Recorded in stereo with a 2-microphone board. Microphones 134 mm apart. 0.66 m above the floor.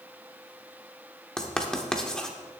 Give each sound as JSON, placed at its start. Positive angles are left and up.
{"t": 1.4, "sound": "writing", "side_deg": 5, "distance_m": 1.0}